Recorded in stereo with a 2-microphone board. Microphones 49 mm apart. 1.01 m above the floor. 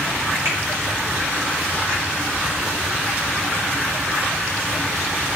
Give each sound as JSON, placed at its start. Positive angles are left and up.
{"t": 0.5, "sound": "a finger snap", "side_deg": -60, "distance_m": 1.9}